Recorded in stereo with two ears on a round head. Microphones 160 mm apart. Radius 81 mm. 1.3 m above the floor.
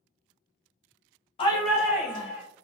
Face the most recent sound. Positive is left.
turn(degrees=-30)  # may be behind; listen again after turning